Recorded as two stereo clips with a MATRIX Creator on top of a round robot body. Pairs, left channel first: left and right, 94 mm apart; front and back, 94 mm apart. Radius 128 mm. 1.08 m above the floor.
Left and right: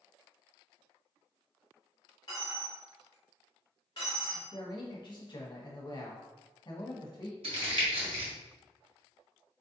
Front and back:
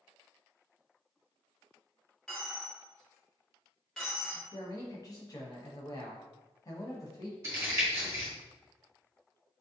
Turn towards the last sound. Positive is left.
turn(degrees=-115)